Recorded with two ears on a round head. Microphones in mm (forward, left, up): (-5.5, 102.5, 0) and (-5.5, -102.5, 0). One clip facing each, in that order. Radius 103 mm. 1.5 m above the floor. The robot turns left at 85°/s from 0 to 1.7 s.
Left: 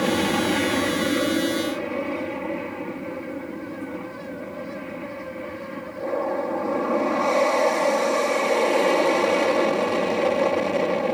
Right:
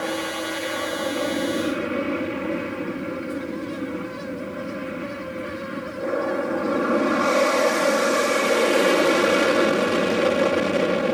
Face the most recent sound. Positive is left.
turn(degrees=-20)